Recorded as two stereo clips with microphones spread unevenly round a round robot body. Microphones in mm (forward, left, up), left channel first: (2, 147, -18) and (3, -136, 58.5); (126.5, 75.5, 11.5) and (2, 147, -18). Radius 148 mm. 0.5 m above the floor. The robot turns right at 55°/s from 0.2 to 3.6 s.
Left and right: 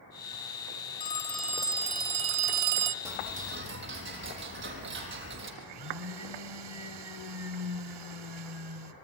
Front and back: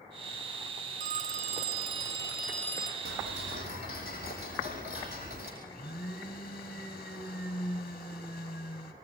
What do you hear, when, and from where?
1.0 s a phone ringing: 150° left, 0.5 m; by 3.0 s 105° right, 0.5 m
3.0 s ticking: 170° right, 4.5 m; by 5.5 s 140° right, 4.5 m
5.6 s a blender: 90° right, 2.5 m